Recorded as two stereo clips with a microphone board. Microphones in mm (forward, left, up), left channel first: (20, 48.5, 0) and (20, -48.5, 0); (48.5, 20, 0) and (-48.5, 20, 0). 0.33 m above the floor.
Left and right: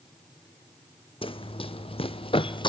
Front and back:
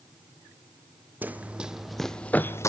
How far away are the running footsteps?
About 1.1 m.